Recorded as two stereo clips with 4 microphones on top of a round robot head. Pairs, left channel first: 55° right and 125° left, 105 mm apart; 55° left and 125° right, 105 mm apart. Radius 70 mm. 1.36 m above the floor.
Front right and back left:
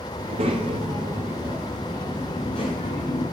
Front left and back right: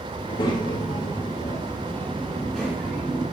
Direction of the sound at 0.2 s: 100° left.